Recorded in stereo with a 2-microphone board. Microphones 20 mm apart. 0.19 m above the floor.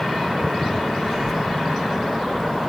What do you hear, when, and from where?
1.0 s a child speaking: 5° left (ahead or behind), 2.5 m